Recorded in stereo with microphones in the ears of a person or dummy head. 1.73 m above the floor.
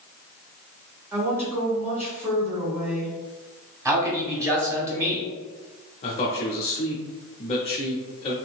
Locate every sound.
1.1 s a woman speaking: 10° right (ahead or behind), 1.6 m
3.9 s a man speaking: 15° right (ahead or behind), 1.2 m
6.0 s a man speaking: 35° left (ahead or behind), 0.6 m